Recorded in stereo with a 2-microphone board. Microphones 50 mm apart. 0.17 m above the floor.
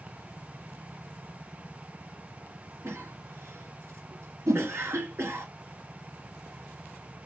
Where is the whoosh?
65° right (ahead or behind), 2.5 m.